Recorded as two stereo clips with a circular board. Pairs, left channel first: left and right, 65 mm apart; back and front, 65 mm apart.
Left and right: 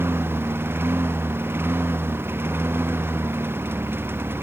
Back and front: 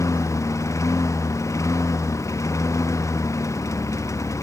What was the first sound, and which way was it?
A lawn mower, 145° right.